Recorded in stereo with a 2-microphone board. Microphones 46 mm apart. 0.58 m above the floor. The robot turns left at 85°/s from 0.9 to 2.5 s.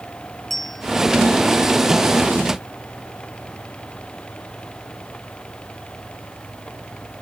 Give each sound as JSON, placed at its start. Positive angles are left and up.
{"t": 0.5, "sound": "a bell", "side_deg": 5}